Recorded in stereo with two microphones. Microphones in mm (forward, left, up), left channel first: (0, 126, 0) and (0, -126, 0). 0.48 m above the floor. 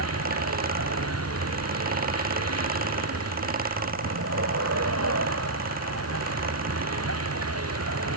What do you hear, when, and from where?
0.0 s a vehicle: 75° right (ahead or behind)